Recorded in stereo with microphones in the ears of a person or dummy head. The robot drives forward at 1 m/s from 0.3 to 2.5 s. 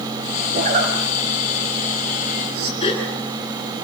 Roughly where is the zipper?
Right.